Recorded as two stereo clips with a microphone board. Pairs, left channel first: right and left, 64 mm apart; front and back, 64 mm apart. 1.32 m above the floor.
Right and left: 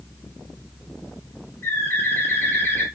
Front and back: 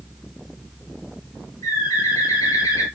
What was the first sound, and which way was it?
A bird, 30° right.